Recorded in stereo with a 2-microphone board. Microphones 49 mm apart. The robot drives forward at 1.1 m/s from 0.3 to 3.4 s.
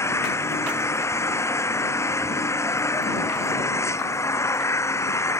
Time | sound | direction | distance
0.0 | an engine running | 75° left (ahead or behind) | ?